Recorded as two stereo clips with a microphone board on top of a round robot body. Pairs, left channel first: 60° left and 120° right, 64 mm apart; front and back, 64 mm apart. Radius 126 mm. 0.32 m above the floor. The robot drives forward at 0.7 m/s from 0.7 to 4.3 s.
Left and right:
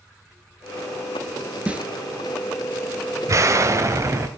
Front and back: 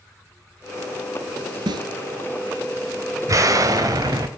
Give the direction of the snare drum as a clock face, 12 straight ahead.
6 o'clock.